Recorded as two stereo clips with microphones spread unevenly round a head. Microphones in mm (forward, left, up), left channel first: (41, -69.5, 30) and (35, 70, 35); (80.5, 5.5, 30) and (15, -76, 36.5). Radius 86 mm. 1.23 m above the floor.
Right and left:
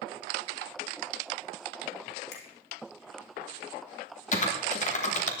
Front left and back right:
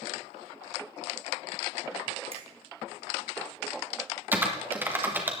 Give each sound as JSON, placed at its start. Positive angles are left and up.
{"t": 2.3, "sound": "a finger snap", "azimuth_deg": -100, "distance_m": 1.9}
{"t": 4.3, "sound": "typing on a keyboard", "azimuth_deg": -55, "distance_m": 2.0}